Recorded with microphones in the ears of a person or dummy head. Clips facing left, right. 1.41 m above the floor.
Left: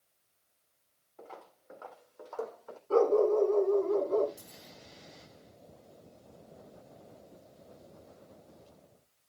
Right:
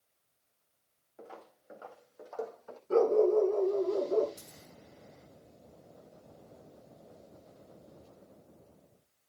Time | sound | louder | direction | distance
1.2 | footsteps | even | 20° right (ahead or behind) | 4 m
2.9 | a dog barking | even | 20° right (ahead or behind) | 5 m
4.4 | a dropped coin | left 1 dB | 75° right (ahead or behind) | 4 m